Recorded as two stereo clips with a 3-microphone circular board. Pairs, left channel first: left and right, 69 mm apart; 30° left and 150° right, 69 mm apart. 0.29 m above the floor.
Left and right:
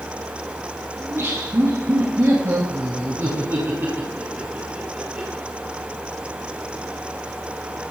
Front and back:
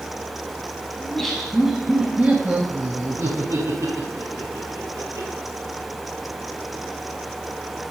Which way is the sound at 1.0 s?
50° right.